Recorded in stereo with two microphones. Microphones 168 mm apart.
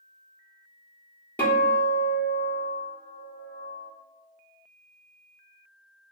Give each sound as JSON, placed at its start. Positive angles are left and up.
{"t": 1.4, "sound": "a guitar", "side_deg": 10, "distance_m": 1.4}